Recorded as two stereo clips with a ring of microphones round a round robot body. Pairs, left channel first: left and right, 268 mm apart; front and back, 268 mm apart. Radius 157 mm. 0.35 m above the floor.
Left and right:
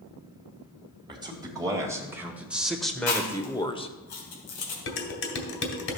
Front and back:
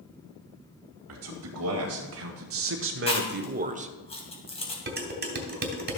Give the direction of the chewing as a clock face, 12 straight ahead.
10 o'clock.